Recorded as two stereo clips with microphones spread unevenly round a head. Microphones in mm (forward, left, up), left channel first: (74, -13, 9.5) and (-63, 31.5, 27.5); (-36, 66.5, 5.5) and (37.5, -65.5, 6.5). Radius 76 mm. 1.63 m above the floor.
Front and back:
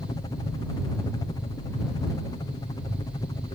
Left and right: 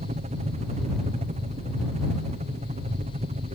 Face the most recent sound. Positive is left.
turn(degrees=-60)